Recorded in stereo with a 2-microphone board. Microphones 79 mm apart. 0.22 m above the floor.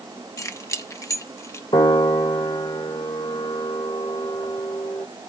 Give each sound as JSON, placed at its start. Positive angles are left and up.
{"t": 0.4, "sound": "keys jangling", "side_deg": 40, "distance_m": 1.0}
{"t": 1.7, "sound": "a piano", "side_deg": 70, "distance_m": 1.2}